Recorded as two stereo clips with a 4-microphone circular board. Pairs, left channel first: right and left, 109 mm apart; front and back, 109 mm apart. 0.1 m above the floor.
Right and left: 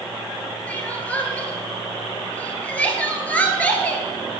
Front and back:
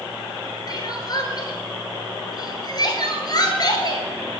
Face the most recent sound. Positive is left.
turn(degrees=-20)